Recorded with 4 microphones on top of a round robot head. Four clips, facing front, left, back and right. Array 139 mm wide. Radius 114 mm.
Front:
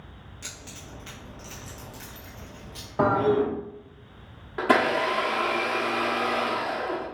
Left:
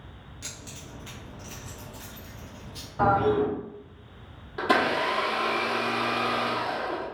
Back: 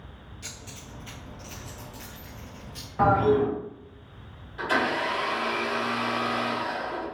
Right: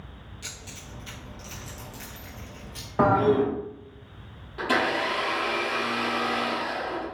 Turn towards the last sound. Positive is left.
turn(degrees=15)